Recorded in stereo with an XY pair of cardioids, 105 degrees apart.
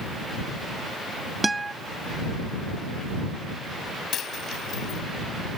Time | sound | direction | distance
1.4 | a guitar | 20° right | ?
4.1 | a dropped coin | 60° left | ?